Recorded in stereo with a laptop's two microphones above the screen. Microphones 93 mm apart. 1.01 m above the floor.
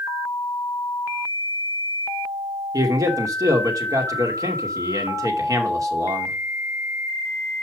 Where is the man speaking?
35° right (ahead or behind), 2.5 m.